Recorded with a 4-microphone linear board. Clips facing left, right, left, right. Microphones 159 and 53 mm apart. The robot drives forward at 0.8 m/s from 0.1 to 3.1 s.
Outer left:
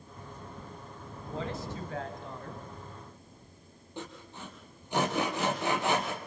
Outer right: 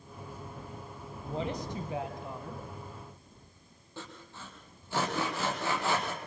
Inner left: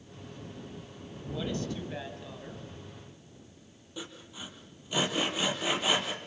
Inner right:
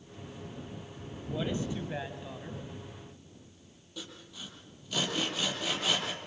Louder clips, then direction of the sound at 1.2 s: Outer right 2 dB, inner right 1 dB; 20° right (ahead or behind).